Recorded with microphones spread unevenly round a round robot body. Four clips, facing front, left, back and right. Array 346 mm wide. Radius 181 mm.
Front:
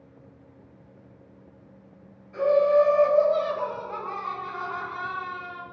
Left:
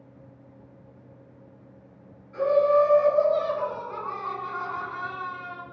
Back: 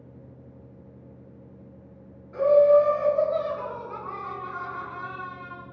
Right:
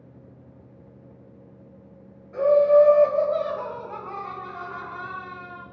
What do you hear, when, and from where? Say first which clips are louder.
2.3 s laughter: right 4 dB, back 3 dB; 100° right, 1.5 m; by 5.6 s 35° left, 1.2 m